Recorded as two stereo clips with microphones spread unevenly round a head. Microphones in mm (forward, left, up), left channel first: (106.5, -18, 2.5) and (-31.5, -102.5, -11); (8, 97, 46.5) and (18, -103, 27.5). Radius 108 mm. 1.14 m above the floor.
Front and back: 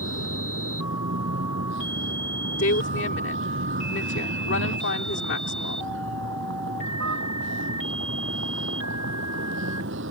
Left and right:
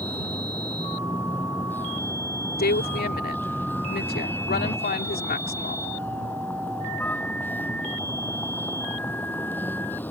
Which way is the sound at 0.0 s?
175° left.